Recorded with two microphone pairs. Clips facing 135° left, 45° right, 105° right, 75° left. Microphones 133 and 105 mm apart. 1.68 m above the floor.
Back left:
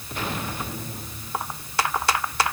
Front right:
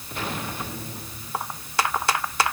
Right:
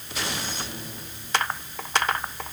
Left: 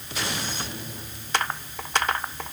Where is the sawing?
I don't hear sawing.